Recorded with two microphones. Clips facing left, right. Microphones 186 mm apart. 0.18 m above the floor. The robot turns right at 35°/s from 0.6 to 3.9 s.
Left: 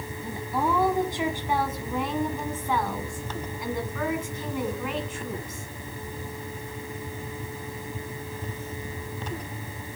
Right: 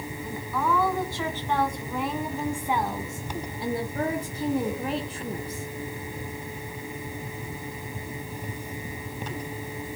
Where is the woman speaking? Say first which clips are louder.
Left 1 dB; 130° left, 1.9 m; by 5.7 s 110° right, 1.9 m.